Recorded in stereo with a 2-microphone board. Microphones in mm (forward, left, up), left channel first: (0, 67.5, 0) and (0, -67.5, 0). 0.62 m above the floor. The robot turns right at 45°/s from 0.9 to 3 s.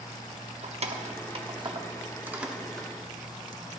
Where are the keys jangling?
50° right (ahead or behind), 0.9 m; by 2.9 s 10° left (ahead or behind), 0.9 m.